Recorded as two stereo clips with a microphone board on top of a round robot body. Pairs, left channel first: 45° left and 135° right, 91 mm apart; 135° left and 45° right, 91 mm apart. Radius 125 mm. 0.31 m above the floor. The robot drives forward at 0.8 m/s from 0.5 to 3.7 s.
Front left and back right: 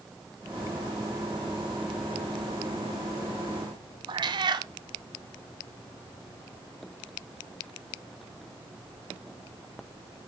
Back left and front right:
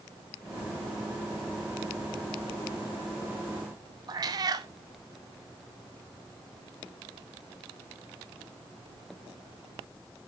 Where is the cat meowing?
95° right, 0.5 m.